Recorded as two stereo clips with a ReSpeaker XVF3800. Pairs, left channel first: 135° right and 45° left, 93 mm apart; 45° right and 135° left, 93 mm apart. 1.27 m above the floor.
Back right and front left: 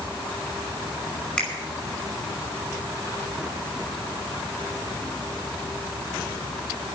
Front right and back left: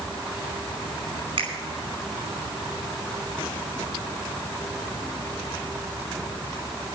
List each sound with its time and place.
1.4 s a finger snap: 145° left, 5 m